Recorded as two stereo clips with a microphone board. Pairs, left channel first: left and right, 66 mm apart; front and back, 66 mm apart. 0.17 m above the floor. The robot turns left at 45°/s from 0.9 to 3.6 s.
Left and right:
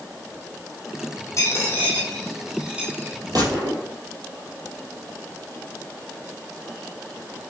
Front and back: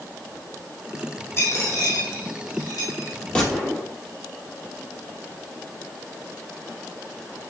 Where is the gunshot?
75° right, 3.5 m; by 3.8 s 85° right, 3.5 m.